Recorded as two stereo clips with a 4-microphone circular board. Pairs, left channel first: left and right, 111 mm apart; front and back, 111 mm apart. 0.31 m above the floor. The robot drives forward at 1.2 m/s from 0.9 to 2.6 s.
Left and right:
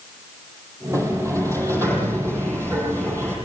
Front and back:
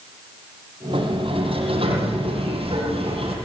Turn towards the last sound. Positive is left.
turn(degrees=-155)